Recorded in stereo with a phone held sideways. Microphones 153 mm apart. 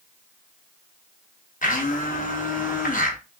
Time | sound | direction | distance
1.6 | a blender | 60° left (ahead or behind) | 0.8 m